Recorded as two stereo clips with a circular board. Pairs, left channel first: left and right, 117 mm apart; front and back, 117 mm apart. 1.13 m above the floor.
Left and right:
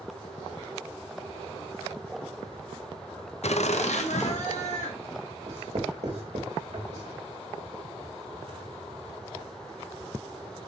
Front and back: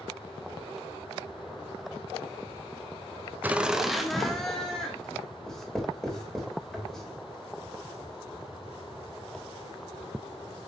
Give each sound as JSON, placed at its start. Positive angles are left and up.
{"t": 3.4, "sound": "laughter", "azimuth_deg": 105, "distance_m": 0.6}
{"t": 5.5, "sound": "writing", "azimuth_deg": -85, "distance_m": 3.0}